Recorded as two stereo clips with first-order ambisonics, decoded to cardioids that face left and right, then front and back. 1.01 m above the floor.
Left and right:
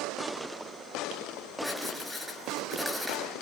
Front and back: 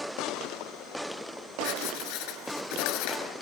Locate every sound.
1.6 s writing: 5° right, 6 m